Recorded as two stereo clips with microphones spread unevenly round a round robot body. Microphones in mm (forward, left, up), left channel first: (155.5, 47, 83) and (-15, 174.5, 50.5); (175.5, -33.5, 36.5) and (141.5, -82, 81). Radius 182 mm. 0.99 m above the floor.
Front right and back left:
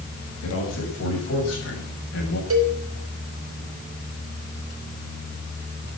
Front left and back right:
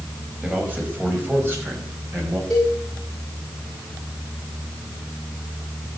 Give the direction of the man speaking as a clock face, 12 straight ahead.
2 o'clock.